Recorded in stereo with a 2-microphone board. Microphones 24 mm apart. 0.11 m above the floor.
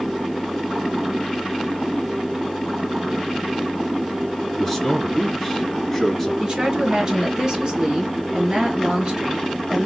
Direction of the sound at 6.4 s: 35° right (ahead or behind).